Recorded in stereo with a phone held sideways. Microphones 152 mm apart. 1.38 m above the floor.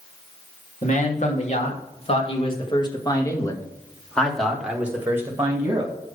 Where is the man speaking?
55° left (ahead or behind), 3 m; by 5.9 s 25° right (ahead or behind), 2 m.